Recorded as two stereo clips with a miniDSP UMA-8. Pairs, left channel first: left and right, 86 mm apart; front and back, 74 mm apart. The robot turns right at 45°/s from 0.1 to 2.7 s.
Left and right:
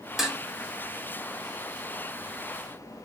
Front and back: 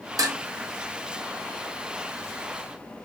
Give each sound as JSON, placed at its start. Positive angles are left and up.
{"t": 0.2, "sound": "dishes clattering", "azimuth_deg": -175, "distance_m": 0.8}